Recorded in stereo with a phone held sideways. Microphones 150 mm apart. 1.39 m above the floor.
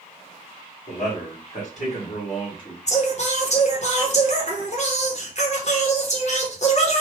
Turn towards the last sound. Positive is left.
turn(degrees=50)  # may be behind; listen again after turning